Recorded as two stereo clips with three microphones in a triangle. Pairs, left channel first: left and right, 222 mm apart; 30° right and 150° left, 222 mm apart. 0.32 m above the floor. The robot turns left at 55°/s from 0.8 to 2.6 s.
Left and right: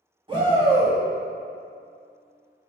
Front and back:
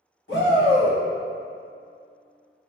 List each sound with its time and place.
0.3 s a shout: 30° right, 1.7 m; by 1.0 s 35° right, 1.7 m